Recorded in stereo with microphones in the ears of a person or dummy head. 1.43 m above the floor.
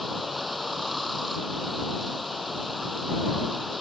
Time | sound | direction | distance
0.0 | running water | centre (ahead or behind) | ?